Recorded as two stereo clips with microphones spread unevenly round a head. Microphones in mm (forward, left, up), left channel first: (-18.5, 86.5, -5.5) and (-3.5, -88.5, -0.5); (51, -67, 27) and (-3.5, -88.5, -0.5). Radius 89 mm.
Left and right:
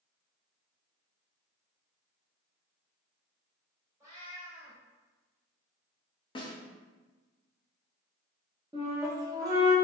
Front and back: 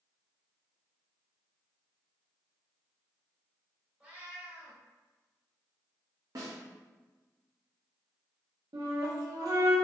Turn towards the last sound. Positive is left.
turn(degrees=-155)